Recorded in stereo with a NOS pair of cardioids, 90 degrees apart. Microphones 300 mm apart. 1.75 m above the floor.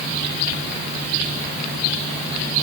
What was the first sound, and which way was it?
Only background noise.